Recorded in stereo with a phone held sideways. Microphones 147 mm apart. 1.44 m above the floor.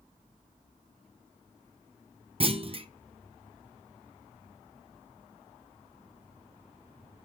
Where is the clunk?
40° right (ahead or behind), 0.6 m.